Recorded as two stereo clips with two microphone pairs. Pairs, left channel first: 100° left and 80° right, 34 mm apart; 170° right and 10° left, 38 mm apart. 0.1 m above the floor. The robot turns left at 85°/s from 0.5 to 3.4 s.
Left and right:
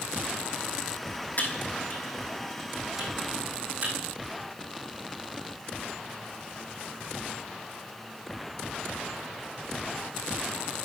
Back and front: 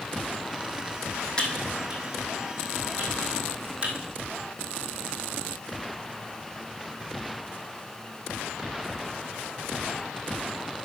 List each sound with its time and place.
1.4 s typing on a keyboard: 130° left, 2.5 m; by 4.0 s 45° right, 2.5 m